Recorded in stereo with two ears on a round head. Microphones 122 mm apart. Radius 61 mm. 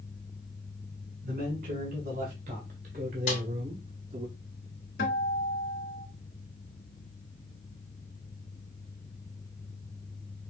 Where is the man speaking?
60° right (ahead or behind), 2.5 m; by 4.3 s 35° right (ahead or behind), 0.9 m.